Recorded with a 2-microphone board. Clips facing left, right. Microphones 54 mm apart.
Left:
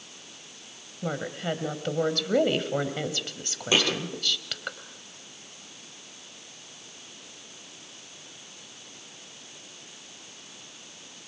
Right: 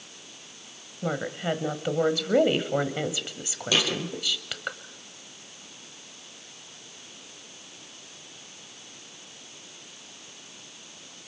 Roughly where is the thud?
Left.